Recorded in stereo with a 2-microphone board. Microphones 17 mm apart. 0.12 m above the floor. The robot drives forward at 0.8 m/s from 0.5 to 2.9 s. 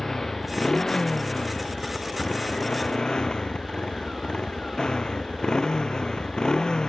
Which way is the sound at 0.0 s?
40° left (ahead or behind).